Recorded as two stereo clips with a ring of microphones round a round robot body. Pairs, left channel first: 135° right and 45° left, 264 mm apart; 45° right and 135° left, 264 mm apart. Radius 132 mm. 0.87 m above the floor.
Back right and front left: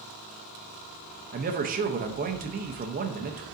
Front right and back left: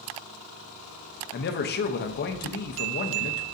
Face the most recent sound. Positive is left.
turn(degrees=-5)